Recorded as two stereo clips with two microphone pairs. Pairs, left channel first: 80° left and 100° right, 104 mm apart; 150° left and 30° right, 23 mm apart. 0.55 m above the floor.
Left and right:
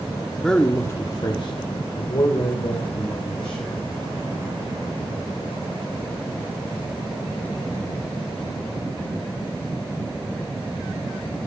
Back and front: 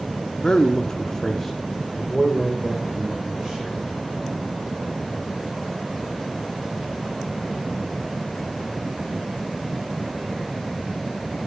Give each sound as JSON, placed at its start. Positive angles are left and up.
{"t": 0.4, "sound": "a man speaking", "azimuth_deg": 160, "distance_m": 0.8}